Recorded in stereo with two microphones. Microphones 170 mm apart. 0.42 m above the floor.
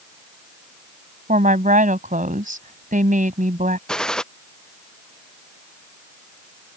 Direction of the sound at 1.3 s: 50° right (ahead or behind).